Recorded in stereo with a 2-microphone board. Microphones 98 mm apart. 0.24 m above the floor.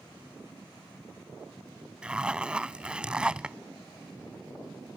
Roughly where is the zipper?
Centre.